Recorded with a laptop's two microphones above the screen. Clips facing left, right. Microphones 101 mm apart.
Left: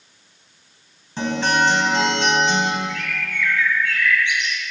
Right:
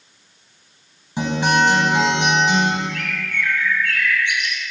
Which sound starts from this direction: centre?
A guitar, at 1.2 s.